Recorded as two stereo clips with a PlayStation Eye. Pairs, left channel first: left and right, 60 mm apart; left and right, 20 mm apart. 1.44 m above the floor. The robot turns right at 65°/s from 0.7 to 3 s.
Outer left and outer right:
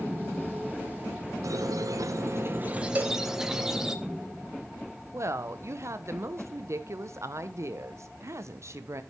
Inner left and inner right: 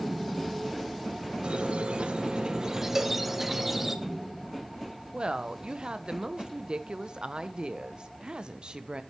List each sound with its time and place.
1.4 s a squeak: 110° right, 0.7 m; by 4.0 s 10° right, 0.7 m
3.0 s a cowbell: 30° right (ahead or behind), 0.7 m
5.1 s a woman speaking: 50° right (ahead or behind), 0.7 m